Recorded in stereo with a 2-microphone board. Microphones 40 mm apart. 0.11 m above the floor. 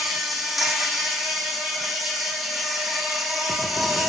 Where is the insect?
5° right (ahead or behind), 1.8 m.